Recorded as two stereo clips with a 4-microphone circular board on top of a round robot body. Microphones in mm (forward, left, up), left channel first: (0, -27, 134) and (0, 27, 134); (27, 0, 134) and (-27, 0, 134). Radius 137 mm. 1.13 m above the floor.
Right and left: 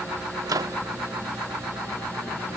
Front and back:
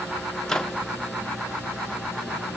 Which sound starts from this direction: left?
A microwave, at 0.5 s.